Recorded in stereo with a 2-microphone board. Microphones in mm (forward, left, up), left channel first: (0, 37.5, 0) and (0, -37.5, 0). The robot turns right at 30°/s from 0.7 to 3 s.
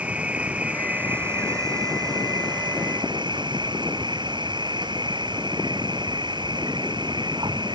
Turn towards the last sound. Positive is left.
turn(degrees=-95)